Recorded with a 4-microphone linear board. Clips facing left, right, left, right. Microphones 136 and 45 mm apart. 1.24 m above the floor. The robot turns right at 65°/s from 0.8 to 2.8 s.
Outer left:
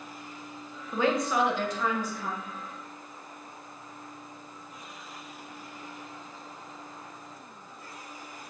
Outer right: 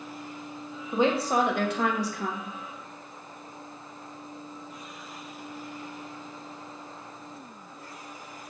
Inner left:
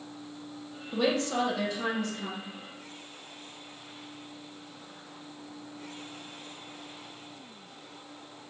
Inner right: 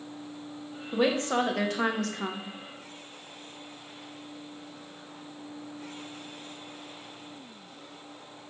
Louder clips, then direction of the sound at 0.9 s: Outer right 2 dB, inner right 2 dB; 165° right.